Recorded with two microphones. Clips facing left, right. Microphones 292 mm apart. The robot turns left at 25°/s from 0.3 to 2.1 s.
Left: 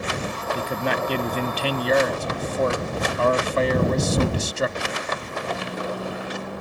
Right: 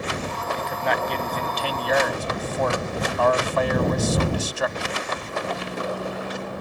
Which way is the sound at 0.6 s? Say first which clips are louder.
Left 2 dB; 85° left.